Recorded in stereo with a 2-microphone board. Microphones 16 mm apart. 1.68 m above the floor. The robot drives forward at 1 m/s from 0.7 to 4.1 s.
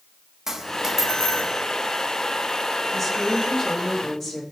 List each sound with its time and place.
0.5 s a dropped coin: 30° right (ahead or behind), 1.2 m; by 1.5 s 25° right (ahead or behind), 1.6 m
2.9 s a woman speaking: 10° left (ahead or behind), 2.5 m; by 4.4 s 5° left (ahead or behind), 3.5 m